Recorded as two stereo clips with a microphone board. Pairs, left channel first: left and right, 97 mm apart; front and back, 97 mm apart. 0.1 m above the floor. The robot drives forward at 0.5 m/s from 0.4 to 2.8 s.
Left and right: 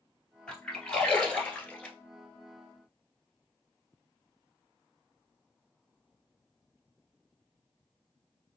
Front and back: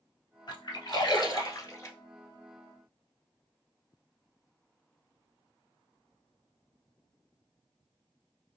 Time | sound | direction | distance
0.5 | a splash | 15° left | 1.7 m